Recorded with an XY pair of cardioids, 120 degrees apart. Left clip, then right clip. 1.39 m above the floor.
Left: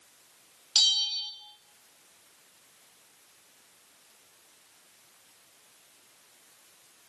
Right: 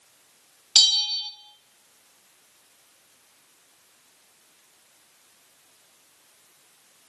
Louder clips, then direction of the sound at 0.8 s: Right 5 dB; 40° right.